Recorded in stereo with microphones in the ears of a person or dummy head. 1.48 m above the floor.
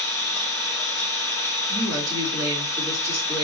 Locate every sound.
0.0 s an engine running: 10° left (ahead or behind), 1.0 m
1.7 s a woman speaking: 25° right (ahead or behind), 3 m